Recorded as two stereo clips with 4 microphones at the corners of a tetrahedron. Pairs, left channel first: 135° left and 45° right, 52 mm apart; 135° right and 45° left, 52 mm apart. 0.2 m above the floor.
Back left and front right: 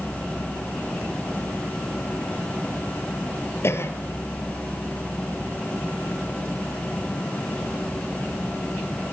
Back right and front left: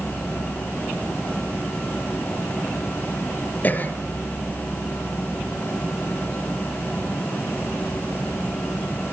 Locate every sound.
3.6 s a cough: 170° left, 3.5 m